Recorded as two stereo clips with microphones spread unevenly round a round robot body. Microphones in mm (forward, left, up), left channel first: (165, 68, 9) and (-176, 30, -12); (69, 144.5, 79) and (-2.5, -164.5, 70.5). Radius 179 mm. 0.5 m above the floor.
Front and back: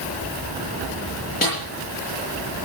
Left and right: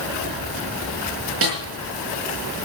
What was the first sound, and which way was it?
A snare drum, 60° right.